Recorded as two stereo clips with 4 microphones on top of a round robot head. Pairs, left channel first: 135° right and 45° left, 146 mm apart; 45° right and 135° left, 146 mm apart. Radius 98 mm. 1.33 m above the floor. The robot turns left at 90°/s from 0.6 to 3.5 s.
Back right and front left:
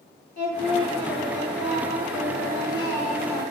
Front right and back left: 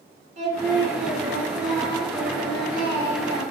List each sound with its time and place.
0.4 s singing: 175° right, 0.8 m; by 3.4 s 70° right, 0.8 m